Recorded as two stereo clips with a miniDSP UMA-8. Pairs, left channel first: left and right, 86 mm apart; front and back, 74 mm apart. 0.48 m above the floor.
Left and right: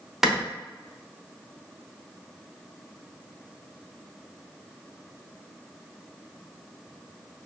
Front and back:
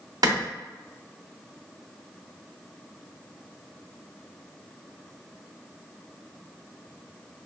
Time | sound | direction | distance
0.2 | a clap | 175° right | 0.8 m